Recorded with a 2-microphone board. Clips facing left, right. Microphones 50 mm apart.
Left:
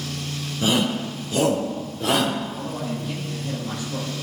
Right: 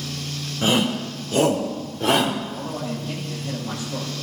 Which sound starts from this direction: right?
A shout, at 0.6 s.